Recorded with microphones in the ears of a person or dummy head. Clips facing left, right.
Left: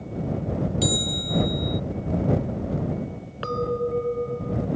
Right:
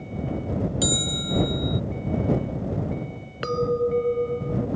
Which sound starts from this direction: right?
A clink, at 3.4 s.